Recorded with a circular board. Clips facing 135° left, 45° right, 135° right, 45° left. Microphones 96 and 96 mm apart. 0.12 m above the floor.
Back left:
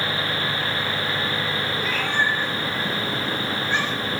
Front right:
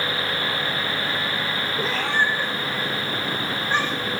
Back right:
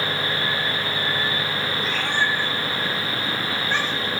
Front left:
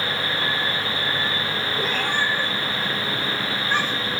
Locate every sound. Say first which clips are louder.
1.8 s a cat meowing: front right 2 dB, front left 1 dB; 10° left, 1.6 m; by 4.1 s straight ahead, 4 m